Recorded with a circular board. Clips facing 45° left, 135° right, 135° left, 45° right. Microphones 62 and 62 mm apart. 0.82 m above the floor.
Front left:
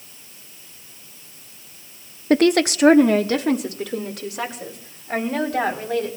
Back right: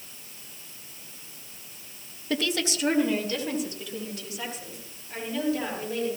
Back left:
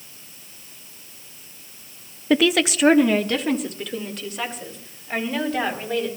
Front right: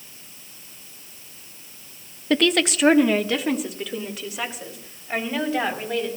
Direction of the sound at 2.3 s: 55° left.